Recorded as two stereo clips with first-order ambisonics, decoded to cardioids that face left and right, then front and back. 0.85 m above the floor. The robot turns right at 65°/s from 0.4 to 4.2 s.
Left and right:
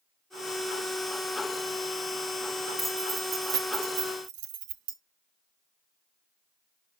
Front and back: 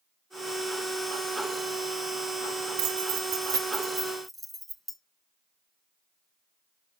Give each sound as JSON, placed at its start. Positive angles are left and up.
{"t": 2.8, "sound": "keys jangling", "azimuth_deg": 175, "distance_m": 0.8}